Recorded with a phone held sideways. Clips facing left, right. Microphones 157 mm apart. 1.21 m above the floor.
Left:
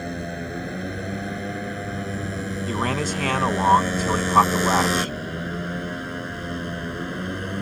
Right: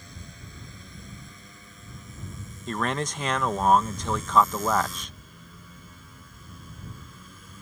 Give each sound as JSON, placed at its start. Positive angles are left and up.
{"t": 0.0, "sound": "a motorcycle", "side_deg": 70}
{"t": 2.7, "sound": "a man speaking", "side_deg": 5}